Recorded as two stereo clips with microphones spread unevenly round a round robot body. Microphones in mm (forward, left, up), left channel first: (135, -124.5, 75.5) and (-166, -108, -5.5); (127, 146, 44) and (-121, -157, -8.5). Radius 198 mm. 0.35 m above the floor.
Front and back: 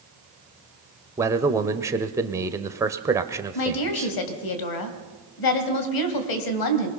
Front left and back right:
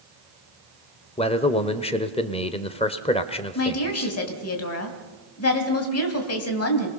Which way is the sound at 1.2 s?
130° left.